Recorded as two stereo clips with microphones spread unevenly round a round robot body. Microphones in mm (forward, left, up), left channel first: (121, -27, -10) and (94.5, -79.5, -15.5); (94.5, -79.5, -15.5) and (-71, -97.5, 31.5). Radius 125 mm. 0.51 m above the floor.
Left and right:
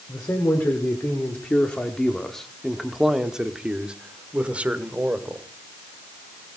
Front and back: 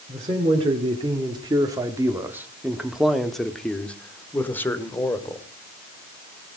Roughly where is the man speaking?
Behind left.